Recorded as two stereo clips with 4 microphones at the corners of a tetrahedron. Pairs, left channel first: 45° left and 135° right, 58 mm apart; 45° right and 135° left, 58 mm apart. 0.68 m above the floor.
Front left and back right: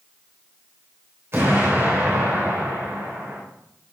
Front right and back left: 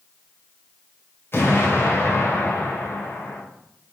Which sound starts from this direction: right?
An explosion, at 1.3 s.